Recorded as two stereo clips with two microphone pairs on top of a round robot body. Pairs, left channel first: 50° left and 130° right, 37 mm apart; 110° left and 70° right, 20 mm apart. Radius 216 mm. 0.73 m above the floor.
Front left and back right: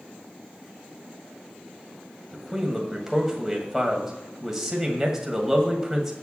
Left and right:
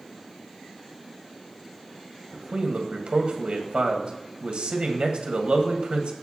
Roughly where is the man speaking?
Ahead right.